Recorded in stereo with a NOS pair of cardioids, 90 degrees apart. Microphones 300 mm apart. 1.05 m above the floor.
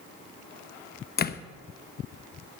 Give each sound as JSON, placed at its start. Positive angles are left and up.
{"t": 1.2, "sound": "a door slam", "azimuth_deg": 30, "distance_m": 0.8}